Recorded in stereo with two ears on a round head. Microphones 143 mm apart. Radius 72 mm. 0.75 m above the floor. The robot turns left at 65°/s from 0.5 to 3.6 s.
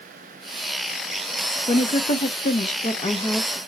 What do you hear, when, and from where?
1.7 s a woman speaking: 135° left, 0.5 m; by 3.6 s 10° left, 0.5 m